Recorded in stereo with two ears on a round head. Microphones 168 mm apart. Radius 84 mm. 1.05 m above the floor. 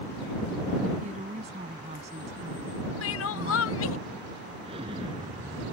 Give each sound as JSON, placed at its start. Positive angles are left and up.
{"t": 1.0, "sound": "a woman speaking", "side_deg": -35}
{"t": 3.0, "sound": "crying", "side_deg": 80}
{"t": 4.6, "sound": "an explosion", "side_deg": -30}